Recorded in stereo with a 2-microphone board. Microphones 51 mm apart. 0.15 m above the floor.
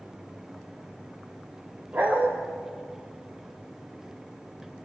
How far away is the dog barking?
About 4.5 m.